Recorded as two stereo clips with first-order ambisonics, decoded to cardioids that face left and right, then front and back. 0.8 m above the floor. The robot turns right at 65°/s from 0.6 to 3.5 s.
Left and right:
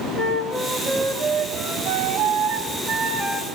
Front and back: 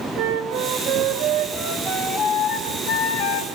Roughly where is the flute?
Behind left.